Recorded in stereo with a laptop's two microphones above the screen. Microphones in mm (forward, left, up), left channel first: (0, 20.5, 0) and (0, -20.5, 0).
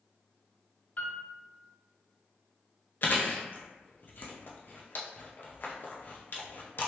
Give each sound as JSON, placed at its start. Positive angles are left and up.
{"t": 1.0, "sound": "a piano", "side_deg": 40, "distance_m": 0.6}
{"t": 3.0, "sound": "chewing", "side_deg": 50, "distance_m": 0.7}